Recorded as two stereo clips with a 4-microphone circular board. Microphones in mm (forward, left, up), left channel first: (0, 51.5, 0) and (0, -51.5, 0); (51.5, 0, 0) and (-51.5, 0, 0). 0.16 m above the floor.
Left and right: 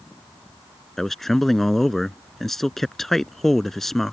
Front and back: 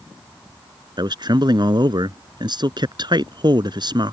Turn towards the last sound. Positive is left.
turn(degrees=175)